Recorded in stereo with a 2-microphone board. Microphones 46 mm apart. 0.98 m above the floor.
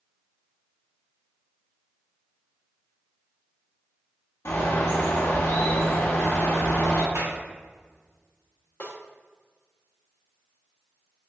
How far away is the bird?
About 0.7 m.